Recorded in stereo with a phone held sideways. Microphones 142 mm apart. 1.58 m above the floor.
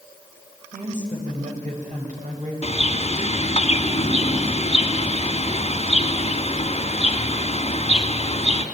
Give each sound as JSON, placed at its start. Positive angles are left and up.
{"t": 0.7, "sound": "a woman speaking", "side_deg": -65, "distance_m": 6.0}
{"t": 2.6, "sound": "a bird", "side_deg": 50, "distance_m": 2.0}